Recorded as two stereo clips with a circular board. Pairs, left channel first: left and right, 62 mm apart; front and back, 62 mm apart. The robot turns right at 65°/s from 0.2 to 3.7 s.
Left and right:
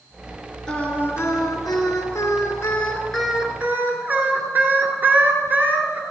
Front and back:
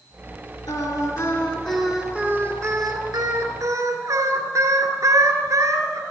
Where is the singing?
10° left, 2.5 m; by 6.0 s 150° right, 2.5 m.